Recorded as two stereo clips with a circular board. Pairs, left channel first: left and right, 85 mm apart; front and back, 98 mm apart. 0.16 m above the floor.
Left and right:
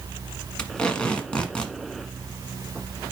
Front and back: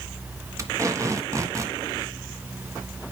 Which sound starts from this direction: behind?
Tape being pulled, at 0.6 s.